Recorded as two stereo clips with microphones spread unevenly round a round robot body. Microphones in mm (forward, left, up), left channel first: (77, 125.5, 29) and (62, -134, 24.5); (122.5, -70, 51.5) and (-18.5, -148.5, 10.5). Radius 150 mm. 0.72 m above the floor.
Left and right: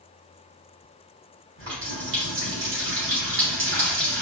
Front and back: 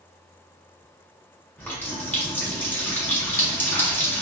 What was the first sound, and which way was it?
A running tap, 50° right.